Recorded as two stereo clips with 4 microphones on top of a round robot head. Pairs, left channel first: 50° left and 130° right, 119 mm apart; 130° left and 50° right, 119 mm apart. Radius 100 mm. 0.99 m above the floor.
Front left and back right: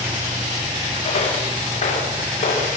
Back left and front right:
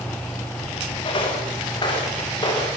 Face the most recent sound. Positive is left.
turn(degrees=75)